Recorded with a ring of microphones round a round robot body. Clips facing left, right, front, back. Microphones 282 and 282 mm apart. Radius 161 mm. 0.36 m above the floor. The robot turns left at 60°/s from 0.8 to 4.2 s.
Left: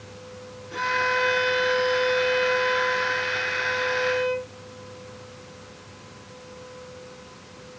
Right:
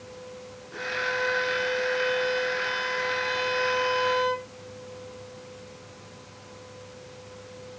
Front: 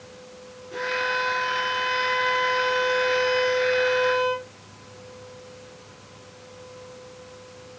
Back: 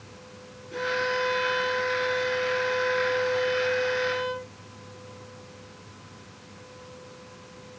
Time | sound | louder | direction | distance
0.7 | a violin | left 3 dB, back 1 dB | 100° left | 4.5 m